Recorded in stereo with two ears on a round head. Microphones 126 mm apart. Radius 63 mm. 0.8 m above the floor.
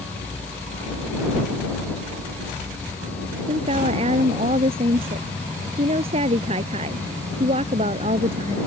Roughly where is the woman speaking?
Right.